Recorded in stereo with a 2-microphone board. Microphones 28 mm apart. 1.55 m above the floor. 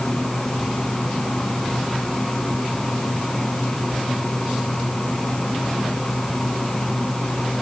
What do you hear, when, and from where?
Only background noise.